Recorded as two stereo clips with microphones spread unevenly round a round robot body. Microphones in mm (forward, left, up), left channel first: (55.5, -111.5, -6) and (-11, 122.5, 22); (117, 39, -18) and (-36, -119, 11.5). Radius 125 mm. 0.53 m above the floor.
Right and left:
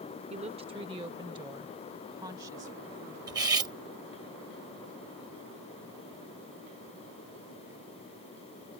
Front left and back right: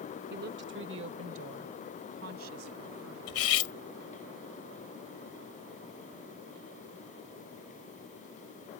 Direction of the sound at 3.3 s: 30° left.